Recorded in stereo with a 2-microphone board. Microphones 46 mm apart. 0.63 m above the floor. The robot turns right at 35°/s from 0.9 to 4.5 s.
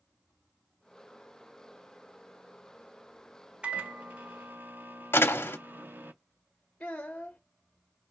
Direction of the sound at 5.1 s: 60° left (ahead or behind).